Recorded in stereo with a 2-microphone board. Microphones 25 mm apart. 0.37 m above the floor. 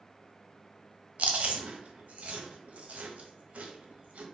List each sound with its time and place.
1.2 s chewing: 65° right (ahead or behind), 0.6 m